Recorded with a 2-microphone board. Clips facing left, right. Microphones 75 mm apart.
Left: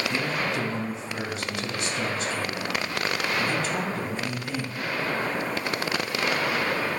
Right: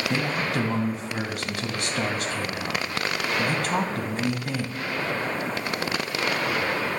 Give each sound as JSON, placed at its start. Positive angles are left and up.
{"t": 0.1, "sound": "a man speaking", "side_deg": -60, "distance_m": 2.5}